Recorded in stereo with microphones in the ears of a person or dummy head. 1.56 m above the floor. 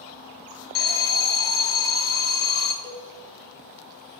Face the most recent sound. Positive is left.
turn(degrees=50)  # may be behind; listen again after turning